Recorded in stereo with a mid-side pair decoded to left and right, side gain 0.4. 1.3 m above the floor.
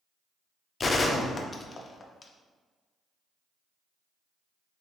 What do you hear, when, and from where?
0.8 s a gunshot: 40° left, 0.5 m